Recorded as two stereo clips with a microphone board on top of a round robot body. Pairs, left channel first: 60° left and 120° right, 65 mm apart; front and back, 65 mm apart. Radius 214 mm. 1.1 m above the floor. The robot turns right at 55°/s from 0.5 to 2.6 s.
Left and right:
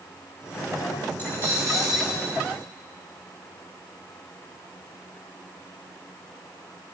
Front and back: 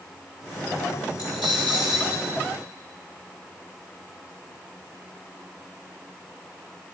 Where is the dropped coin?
5° right, 0.7 m; by 2.2 s 50° left, 0.7 m.